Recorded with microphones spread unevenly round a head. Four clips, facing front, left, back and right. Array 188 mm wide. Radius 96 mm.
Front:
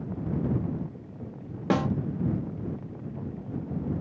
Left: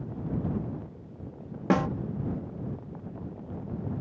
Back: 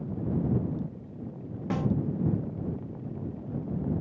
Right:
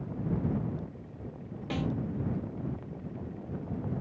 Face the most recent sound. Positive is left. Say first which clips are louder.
# left 9 dB, front 5 dB
turn(degrees=35)